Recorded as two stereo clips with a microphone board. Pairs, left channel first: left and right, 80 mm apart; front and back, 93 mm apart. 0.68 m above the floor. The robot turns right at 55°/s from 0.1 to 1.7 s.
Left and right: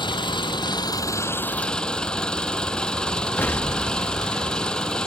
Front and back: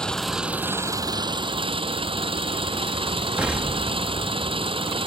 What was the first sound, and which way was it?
An engine running, 80° left.